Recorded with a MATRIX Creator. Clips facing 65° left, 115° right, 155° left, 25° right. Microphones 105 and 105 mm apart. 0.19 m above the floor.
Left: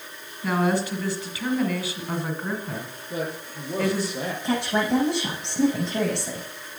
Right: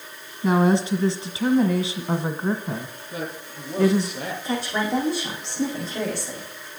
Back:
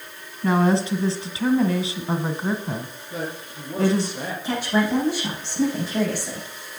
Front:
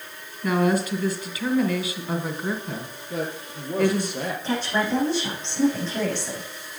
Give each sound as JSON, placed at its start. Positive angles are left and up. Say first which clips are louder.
{"t": 0.4, "sound": "a woman speaking", "louder": "right 4 dB, back 2 dB", "azimuth_deg": -165, "distance_m": 1.5}
{"t": 3.1, "sound": "a man speaking", "louder": "left 3 dB, front 2 dB", "azimuth_deg": 10, "distance_m": 6.0}
{"t": 4.4, "sound": "a woman speaking", "louder": "left 2 dB, back 4 dB", "azimuth_deg": 80, "distance_m": 7.5}